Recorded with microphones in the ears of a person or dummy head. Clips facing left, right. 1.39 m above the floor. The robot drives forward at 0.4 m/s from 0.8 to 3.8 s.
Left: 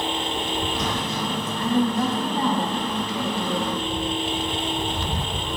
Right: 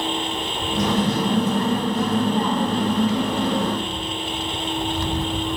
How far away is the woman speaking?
About 2.5 m.